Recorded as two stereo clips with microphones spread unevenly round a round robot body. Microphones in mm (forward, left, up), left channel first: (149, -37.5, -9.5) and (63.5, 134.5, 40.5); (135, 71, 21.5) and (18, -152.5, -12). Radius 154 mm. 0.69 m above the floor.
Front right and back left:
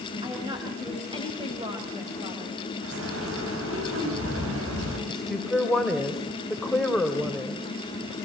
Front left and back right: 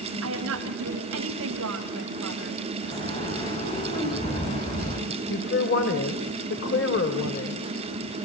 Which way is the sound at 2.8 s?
135° left.